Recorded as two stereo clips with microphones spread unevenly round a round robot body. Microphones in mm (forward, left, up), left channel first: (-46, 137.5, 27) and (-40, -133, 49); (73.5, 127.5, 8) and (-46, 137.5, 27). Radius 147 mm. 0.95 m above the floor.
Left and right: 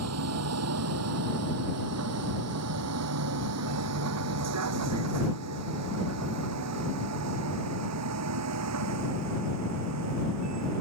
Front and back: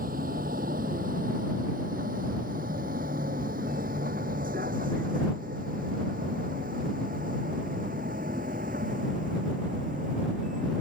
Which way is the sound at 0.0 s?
125° right.